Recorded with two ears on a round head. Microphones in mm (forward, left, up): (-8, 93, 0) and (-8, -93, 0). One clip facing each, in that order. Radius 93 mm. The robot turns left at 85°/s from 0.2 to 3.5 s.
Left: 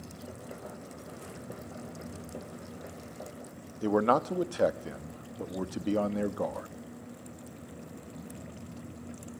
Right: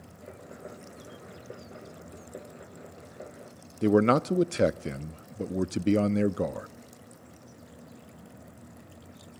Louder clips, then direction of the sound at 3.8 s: Right 4 dB; 30° right (ahead or behind).